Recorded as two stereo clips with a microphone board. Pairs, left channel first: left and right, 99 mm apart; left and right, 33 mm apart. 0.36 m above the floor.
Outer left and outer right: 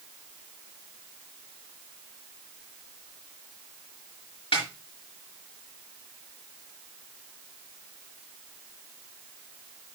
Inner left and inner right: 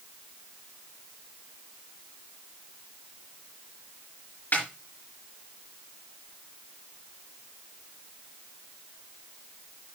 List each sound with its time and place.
4.5 s a snare drum: 70° left (ahead or behind), 4.5 m